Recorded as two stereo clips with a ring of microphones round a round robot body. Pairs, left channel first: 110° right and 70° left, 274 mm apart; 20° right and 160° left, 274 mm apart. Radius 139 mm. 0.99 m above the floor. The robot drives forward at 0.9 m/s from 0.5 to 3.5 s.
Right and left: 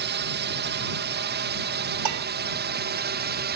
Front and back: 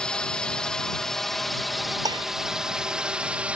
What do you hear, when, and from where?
0.0 s a drone: 60° left; by 3.6 s 75° left
2.0 s dishes clattering: 80° left; by 2.3 s 85° left